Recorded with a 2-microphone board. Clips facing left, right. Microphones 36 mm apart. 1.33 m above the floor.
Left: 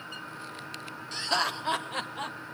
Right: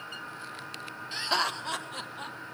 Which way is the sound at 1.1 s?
15° right (ahead or behind).